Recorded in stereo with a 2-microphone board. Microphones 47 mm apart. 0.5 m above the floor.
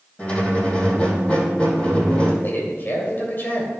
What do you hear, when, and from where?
0.2 s a squeak: 25° left (ahead or behind), 4 m
2.4 s a man speaking: 45° left (ahead or behind), 2.5 m